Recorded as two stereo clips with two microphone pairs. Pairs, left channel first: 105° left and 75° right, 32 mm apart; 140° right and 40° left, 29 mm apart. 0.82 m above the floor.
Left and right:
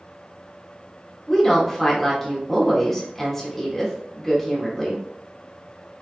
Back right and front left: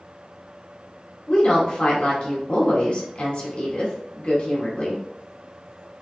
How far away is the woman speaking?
About 1.4 m.